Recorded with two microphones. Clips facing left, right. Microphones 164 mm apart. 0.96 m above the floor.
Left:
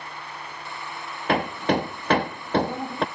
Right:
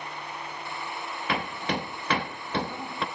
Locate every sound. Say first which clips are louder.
1.3 s hammering: left 8 dB; 50° left (ahead or behind), 0.6 m